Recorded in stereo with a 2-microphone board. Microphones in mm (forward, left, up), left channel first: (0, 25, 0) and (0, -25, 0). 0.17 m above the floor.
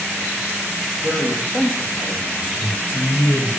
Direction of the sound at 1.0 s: 65° left (ahead or behind).